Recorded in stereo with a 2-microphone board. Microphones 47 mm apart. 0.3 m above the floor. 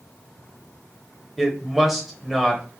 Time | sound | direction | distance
1.4 | a woman speaking | 5° right (ahead or behind) | 0.9 m